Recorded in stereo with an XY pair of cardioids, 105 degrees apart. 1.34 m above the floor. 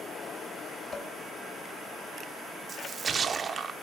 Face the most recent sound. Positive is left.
turn(degrees=-35)